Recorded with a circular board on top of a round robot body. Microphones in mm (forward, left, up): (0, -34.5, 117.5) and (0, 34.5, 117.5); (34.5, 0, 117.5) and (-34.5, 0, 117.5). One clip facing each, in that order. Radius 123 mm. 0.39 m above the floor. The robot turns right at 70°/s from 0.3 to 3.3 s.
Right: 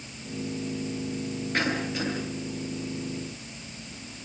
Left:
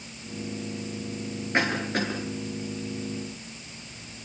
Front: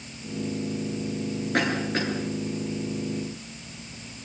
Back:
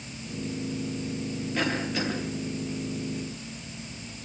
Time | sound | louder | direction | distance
1.5 | a cough | left 3 dB, front 3 dB | 20° left | 9 m